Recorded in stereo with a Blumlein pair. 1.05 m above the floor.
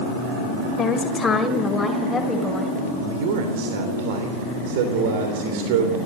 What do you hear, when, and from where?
0.8 s a woman speaking: 20° left, 4 m; by 2.8 s straight ahead, 5.5 m
3.0 s a man speaking: 50° right, 3 m